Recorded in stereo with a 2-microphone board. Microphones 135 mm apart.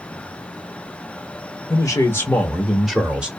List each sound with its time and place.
1.7 s a man speaking: 25° left (ahead or behind), 0.8 m; by 3.3 s 10° right (ahead or behind), 1.1 m